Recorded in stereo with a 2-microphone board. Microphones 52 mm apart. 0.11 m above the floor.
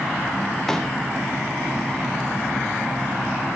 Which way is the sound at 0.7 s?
10° left (ahead or behind).